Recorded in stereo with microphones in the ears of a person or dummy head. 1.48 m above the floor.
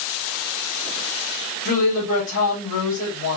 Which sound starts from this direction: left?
A woman speaking, at 1.6 s.